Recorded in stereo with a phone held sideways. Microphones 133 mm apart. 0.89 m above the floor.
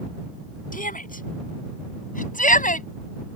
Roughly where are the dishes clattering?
I don't hear dishes clattering.